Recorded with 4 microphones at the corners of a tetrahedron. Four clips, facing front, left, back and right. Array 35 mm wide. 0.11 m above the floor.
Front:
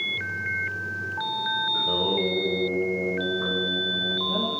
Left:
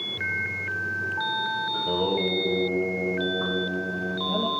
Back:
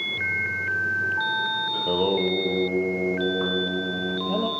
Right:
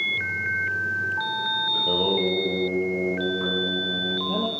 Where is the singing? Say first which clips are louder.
Right 3 dB, back 2 dB; 160° right, 1.8 m.